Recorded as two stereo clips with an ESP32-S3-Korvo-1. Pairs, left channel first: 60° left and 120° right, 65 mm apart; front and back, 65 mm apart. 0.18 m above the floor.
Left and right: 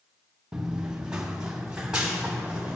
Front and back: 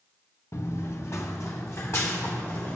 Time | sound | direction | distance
0.5 | running footsteps | 40° right | 1.1 m